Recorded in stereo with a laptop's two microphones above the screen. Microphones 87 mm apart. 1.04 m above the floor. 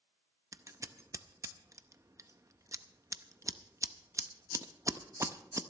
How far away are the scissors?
About 0.5 m.